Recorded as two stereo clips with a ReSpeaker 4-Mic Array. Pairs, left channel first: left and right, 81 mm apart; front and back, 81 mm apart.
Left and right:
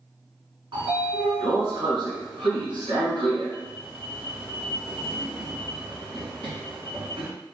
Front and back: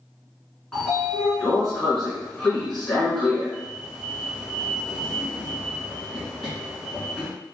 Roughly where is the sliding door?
Right.